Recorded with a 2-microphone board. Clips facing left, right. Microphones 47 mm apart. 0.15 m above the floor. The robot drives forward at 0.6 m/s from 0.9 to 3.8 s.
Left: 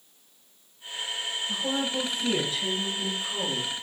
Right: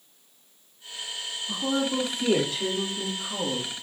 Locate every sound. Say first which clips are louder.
1.5 s a woman speaking: right 4 dB; 70° right (ahead or behind), 5.5 m; by 3.7 s 75° right (ahead or behind), 5.5 m